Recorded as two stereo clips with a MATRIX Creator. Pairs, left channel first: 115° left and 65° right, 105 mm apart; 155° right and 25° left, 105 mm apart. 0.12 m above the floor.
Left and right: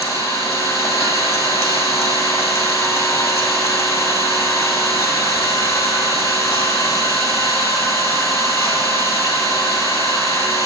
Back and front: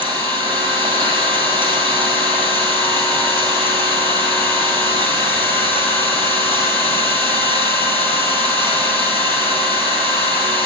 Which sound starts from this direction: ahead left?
An engine running, at 0.0 s.